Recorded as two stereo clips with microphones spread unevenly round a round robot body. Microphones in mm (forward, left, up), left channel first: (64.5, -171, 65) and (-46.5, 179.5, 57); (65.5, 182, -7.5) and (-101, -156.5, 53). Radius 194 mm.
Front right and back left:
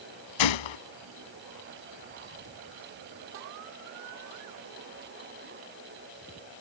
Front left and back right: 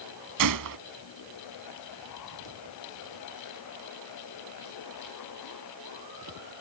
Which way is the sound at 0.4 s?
70° right.